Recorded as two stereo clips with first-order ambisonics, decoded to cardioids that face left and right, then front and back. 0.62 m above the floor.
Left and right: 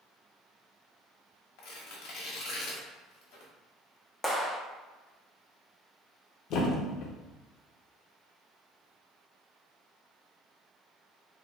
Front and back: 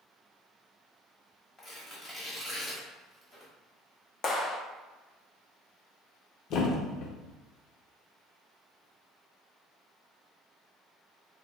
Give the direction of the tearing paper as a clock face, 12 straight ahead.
10 o'clock.